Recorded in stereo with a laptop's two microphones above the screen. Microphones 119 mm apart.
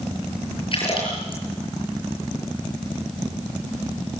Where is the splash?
45° left (ahead or behind), 7 m.